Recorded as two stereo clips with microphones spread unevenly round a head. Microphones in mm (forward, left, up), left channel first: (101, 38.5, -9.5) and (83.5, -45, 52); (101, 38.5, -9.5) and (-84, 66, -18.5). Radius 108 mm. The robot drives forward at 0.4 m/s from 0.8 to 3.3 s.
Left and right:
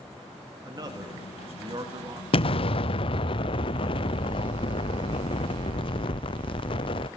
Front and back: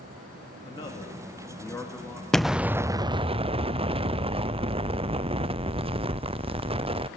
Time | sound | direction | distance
0.7 | a man speaking | 80° right | 2.5 m
2.3 | an explosion | 80° left | 0.7 m